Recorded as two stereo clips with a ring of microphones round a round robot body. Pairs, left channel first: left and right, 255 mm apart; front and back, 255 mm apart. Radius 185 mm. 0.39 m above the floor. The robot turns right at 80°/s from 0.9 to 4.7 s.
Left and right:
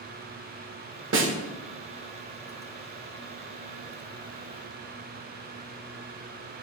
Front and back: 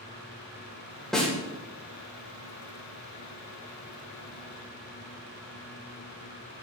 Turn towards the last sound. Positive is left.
turn(degrees=-165)